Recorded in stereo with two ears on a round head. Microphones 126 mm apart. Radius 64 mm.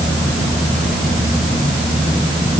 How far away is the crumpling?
No crumpling in this recording.